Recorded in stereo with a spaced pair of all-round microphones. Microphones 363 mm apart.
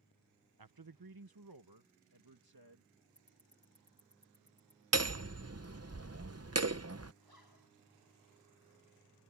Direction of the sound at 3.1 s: 50° right (ahead or behind).